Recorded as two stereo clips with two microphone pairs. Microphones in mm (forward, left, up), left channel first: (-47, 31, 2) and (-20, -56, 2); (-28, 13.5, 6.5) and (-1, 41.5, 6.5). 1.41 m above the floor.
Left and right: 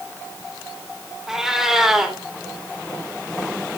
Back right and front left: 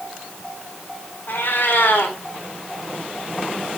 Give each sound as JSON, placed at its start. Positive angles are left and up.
{"t": 1.3, "sound": "a cat meowing", "azimuth_deg": -155, "distance_m": 2.5}